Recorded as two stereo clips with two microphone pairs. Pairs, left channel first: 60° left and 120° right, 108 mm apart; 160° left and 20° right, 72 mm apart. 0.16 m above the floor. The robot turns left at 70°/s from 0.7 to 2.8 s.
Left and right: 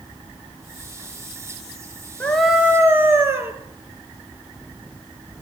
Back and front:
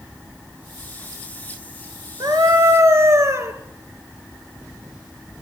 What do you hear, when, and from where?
2.2 s a scream: 15° right, 3 m; by 3.5 s 55° right, 3 m